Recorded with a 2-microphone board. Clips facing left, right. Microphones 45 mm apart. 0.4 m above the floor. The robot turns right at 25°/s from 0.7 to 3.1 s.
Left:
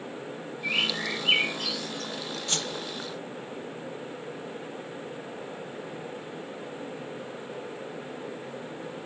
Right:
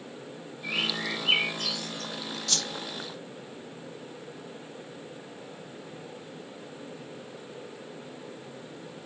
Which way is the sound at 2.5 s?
30° left (ahead or behind).